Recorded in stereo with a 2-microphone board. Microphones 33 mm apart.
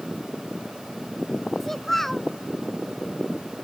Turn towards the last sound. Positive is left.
turn(degrees=5)  # may be behind; listen again after turning